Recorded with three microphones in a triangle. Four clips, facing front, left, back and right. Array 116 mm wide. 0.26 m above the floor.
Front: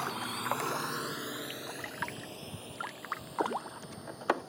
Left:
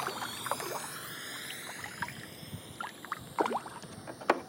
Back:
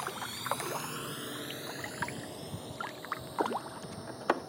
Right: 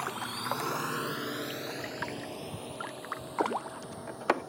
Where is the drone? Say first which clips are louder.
Right 2 dB, front 3 dB; 10° right; by 4.5 s 110° right.